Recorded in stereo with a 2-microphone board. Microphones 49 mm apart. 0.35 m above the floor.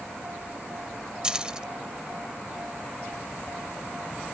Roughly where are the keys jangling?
Centre.